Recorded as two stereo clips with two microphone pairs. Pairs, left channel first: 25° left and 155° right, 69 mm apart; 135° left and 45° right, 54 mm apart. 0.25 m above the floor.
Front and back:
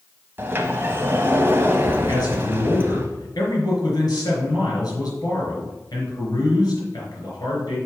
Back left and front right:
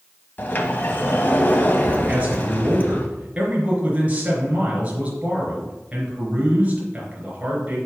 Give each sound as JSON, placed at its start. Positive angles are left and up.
{"t": 0.4, "sound": "a sliding door", "azimuth_deg": 160, "distance_m": 1.1}
{"t": 2.1, "sound": "a man speaking", "azimuth_deg": 20, "distance_m": 4.0}